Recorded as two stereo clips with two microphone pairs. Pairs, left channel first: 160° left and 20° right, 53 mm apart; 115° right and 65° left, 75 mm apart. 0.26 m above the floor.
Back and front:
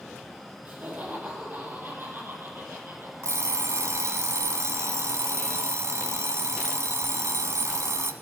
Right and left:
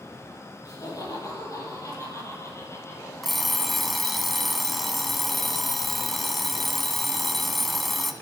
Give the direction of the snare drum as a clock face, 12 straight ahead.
I don't hear a snare drum.